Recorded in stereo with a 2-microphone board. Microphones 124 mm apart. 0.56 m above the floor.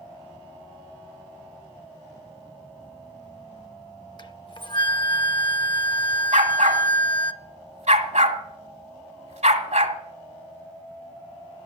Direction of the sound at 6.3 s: 80° right.